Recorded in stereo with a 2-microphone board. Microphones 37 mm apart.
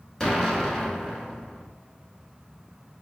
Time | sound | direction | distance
0.2 | an explosion | 15° left (ahead or behind) | 0.8 m